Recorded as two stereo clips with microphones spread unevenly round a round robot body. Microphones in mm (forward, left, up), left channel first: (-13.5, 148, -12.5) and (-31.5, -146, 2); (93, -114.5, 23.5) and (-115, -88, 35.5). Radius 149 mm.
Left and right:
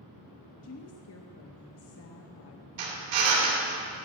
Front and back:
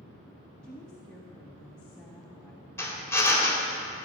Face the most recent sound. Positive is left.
turn(degrees=-85)